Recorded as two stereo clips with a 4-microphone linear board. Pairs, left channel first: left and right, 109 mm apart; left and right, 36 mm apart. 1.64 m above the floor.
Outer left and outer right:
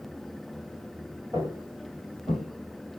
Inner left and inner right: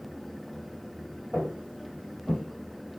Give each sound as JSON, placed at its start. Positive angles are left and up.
{"t": 1.3, "sound": "footsteps", "side_deg": -20, "distance_m": 1.9}